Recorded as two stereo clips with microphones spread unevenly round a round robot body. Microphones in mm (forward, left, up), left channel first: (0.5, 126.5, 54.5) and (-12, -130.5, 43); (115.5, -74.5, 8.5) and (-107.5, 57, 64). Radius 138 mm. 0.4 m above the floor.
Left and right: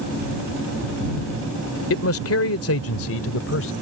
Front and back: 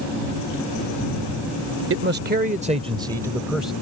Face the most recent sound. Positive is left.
turn(degrees=55)